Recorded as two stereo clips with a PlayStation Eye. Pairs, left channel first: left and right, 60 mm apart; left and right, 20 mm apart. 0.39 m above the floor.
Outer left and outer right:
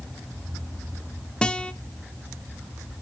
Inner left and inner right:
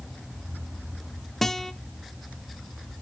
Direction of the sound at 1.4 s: 15° left (ahead or behind).